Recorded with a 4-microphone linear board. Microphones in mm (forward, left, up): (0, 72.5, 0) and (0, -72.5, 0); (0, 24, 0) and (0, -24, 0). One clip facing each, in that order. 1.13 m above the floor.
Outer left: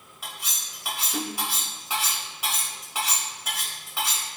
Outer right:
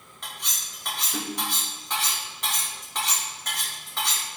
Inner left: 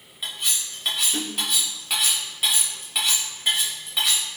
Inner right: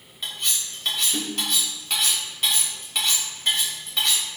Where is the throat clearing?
I don't hear throat clearing.